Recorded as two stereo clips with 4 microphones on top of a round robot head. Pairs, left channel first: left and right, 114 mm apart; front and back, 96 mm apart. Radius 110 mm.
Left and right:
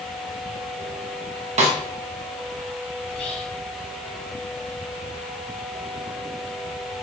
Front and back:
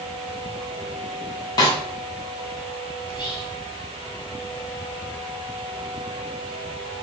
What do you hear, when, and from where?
1.6 s a snare drum: 60° right, 0.9 m
3.0 s whispering: 40° left, 1.2 m